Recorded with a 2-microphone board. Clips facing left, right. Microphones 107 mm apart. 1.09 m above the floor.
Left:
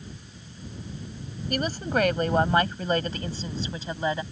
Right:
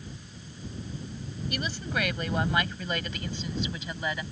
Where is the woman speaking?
50° left (ahead or behind); by 4.2 s 30° left (ahead or behind).